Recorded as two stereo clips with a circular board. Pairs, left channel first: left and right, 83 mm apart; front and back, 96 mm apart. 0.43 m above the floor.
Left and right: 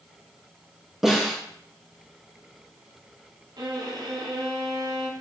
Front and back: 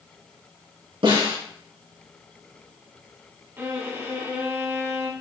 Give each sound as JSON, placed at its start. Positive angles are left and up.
{"t": 1.0, "sound": "a snare drum", "azimuth_deg": -175, "distance_m": 4.5}
{"t": 3.6, "sound": "a violin", "azimuth_deg": -115, "distance_m": 1.7}